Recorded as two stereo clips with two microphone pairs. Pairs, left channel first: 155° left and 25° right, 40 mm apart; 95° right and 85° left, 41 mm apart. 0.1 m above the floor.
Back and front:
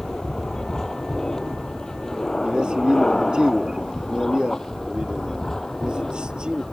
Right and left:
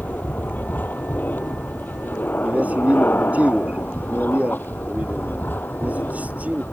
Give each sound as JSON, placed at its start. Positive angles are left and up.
{"t": 0.0, "sound": "an aircraft", "azimuth_deg": -130}
{"t": 2.4, "sound": "a man speaking", "azimuth_deg": 40}